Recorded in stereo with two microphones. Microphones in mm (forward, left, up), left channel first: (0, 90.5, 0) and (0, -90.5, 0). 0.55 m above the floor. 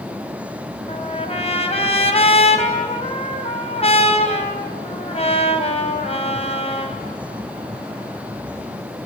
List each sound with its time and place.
0.9 s a trumpet: 35° left (ahead or behind), 3.5 m